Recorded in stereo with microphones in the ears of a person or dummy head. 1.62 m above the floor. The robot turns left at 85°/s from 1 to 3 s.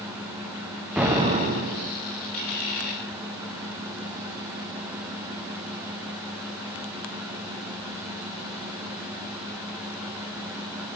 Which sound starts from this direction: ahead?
An explosion, at 1.0 s.